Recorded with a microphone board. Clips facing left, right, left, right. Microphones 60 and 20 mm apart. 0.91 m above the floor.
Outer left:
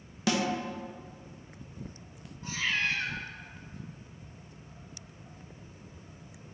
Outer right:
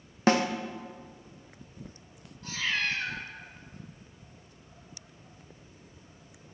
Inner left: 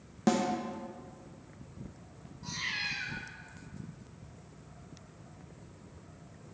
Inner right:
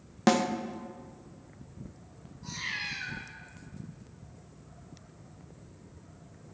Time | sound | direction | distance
0.3 | a snare drum | 40° right (ahead or behind) | 0.7 m
2.4 | a cat meowing | 15° left (ahead or behind) | 1.7 m